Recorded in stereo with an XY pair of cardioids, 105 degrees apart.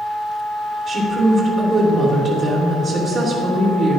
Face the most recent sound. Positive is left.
turn(degrees=-65)